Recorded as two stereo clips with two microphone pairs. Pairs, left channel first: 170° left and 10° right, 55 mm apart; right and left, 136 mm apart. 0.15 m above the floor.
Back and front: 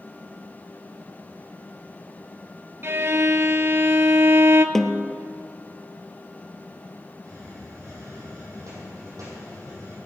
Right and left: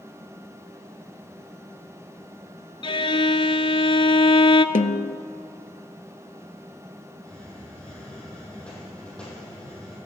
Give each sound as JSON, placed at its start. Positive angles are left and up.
{"t": 2.8, "sound": "a violin", "azimuth_deg": -50, "distance_m": 0.6}
{"t": 4.8, "sound": "a snare drum", "azimuth_deg": -105, "distance_m": 0.6}
{"t": 7.2, "sound": "a hiss", "azimuth_deg": -10, "distance_m": 5.0}